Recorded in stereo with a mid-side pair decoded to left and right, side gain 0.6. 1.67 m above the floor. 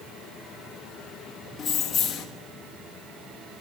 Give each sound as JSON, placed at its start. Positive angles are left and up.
{"t": 1.6, "sound": "keys jangling", "azimuth_deg": 45, "distance_m": 2.0}